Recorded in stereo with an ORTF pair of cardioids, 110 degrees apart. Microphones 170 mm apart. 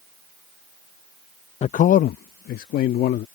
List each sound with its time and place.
1.6 s a man speaking: 40° left; by 3.2 s 70° left